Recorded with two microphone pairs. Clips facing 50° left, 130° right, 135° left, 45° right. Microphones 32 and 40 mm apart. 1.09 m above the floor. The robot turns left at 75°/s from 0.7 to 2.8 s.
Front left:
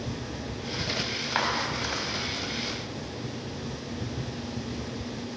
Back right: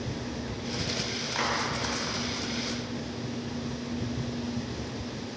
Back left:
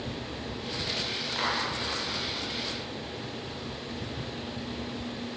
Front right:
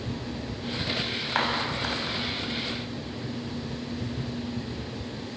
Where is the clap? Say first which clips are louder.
Front left 1 dB, front right 3 dB; 5° right, 5.5 m; by 2.2 s 70° right, 5.5 m.